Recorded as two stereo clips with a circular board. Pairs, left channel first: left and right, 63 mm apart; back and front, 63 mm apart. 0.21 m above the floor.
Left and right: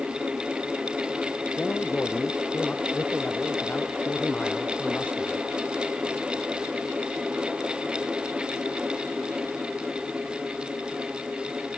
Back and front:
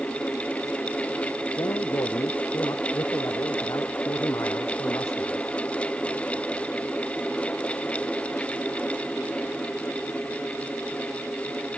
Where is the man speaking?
155° left.